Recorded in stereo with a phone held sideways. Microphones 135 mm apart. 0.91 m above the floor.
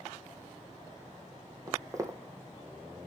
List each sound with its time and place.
1.7 s footsteps: 25° right (ahead or behind), 1.4 m